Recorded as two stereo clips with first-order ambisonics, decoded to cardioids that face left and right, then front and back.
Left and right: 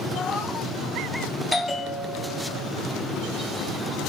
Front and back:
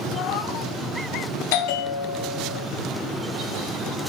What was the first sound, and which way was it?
A cat meowing, 25° left.